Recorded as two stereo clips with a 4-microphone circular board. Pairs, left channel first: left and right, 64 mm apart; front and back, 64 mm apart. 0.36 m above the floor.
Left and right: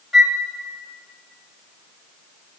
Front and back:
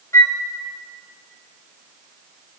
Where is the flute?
5° right, 1.1 m.